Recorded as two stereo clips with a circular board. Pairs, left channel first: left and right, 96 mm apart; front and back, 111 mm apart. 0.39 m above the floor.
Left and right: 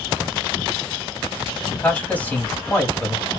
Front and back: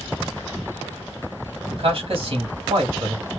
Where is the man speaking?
160° left, 2 m.